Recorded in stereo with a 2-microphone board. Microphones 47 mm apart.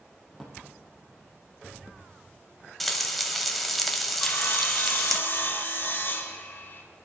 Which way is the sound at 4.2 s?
50° left (ahead or behind).